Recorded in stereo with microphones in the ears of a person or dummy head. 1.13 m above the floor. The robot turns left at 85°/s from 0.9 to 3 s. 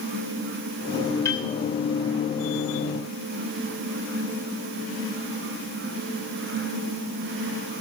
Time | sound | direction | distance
1.2 | a piano | 20° left (ahead or behind) | 2.5 m